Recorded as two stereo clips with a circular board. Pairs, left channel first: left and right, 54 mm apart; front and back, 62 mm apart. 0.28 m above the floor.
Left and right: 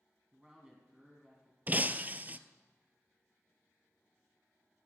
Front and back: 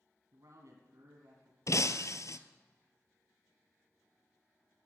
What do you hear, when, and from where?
0.3 s a man speaking: 165° right, 2 m
1.7 s breaking glass: 30° right, 0.7 m